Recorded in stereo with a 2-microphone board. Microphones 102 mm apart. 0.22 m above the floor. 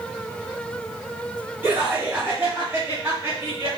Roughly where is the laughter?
Centre.